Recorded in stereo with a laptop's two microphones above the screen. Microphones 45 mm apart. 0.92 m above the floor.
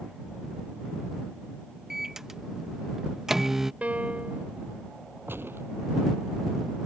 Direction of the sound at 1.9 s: 10° right (ahead or behind).